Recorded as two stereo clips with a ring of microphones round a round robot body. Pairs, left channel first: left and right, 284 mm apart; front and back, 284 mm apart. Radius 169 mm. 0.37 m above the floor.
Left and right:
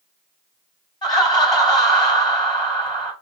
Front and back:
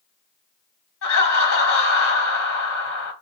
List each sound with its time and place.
1.0 s laughter: 20° left, 1.6 m